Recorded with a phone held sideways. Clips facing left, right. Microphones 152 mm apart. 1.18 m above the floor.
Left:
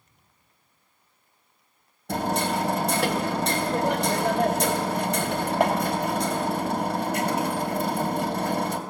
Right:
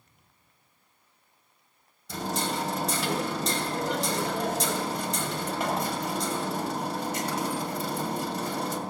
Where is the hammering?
60° left (ahead or behind), 2.5 m.